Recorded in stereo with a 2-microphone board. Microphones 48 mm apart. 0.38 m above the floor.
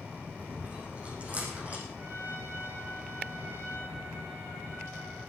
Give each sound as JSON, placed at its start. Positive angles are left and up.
{"t": 0.4, "sound": "chewing", "side_deg": -30, "distance_m": 6.5}
{"t": 1.9, "sound": "a trumpet", "side_deg": -50, "distance_m": 7.0}